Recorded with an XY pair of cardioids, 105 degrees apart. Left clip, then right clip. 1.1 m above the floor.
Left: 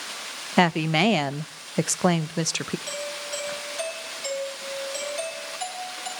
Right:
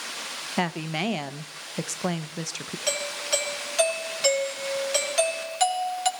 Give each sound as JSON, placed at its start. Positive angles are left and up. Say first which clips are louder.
{"t": 0.6, "sound": "a woman speaking", "louder": "left 8 dB", "azimuth_deg": 50, "distance_m": 0.6}
{"t": 2.9, "sound": "a doorbell", "louder": "right 4 dB", "azimuth_deg": -65, "distance_m": 4.0}